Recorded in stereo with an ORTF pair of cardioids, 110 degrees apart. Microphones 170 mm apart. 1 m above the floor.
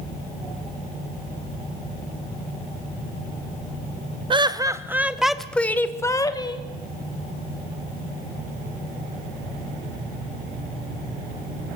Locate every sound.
4.3 s laughter: 30° right, 1.4 m; by 6.6 s 30° left, 2.0 m